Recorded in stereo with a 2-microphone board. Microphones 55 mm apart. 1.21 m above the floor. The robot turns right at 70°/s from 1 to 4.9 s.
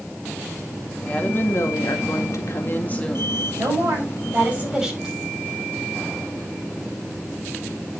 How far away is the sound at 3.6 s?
About 7 m.